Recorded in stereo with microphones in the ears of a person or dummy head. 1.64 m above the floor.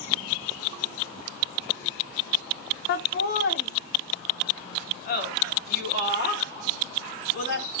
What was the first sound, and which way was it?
Laughter, 60° left (ahead or behind).